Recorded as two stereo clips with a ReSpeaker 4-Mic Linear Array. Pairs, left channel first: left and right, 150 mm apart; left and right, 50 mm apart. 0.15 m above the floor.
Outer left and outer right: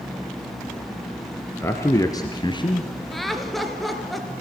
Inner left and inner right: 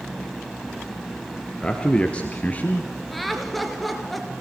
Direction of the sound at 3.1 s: Centre (ahead or behind).